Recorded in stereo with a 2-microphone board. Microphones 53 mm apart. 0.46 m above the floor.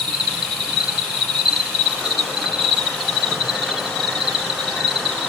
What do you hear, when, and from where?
0.0 s an insect: 5° left (ahead or behind), 1.3 m